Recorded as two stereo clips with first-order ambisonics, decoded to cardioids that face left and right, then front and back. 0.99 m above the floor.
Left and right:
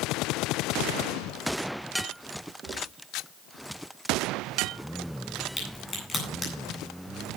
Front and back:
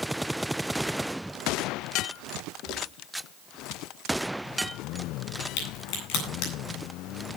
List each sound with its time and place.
2.6 s footsteps: 20° right, 6.5 m
5.6 s a crack: 15° left, 10 m